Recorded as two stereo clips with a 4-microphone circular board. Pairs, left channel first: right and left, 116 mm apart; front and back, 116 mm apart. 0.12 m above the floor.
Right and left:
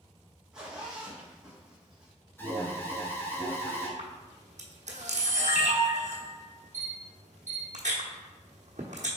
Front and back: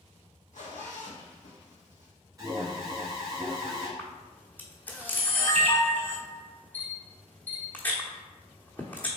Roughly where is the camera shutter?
Left.